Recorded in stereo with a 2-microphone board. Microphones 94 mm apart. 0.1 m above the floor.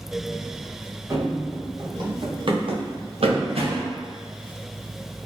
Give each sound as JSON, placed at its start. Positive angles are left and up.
{"t": 1.1, "sound": "running footsteps", "side_deg": -30, "distance_m": 1.5}